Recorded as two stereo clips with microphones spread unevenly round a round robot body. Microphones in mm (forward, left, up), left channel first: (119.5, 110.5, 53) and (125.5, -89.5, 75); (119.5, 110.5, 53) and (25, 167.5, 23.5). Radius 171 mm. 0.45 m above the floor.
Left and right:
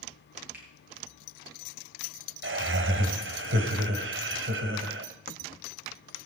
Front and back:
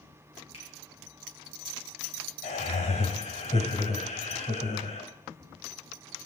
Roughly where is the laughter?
Right.